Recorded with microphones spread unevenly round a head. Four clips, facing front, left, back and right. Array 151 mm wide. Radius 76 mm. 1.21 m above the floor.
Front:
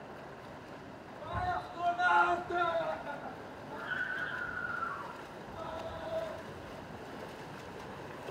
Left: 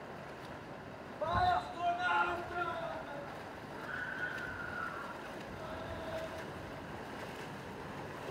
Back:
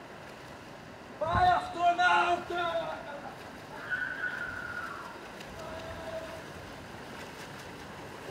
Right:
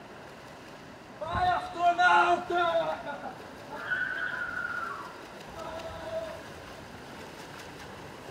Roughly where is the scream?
Behind.